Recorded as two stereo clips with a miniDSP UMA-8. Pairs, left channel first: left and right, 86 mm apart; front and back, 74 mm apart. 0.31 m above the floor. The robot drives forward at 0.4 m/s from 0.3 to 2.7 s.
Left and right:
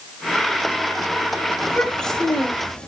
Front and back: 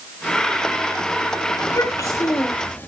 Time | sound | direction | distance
1.6 | a child speaking | 10° left | 0.8 m